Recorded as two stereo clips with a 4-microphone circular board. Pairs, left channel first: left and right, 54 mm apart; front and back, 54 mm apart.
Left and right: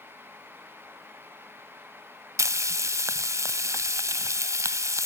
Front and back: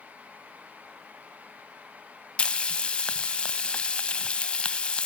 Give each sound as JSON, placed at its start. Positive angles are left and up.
{"t": 2.4, "sound": "frying", "azimuth_deg": -70, "distance_m": 0.6}